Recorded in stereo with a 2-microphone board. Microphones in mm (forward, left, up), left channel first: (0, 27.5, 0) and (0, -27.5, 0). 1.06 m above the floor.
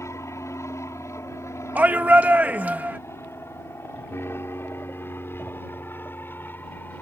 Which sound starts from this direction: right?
A shout, at 1.8 s.